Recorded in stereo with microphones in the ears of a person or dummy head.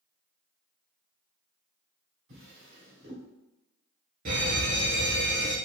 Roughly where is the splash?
No splash in this recording.